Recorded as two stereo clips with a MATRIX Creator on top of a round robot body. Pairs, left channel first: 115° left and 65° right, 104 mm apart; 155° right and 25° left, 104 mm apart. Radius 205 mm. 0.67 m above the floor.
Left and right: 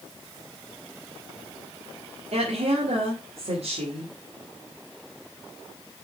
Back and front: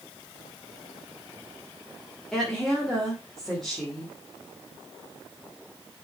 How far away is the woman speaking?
About 2.5 m.